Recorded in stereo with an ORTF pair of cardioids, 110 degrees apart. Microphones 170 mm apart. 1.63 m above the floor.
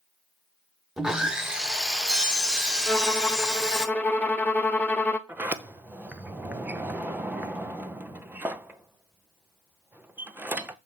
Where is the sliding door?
10° right, 0.6 m.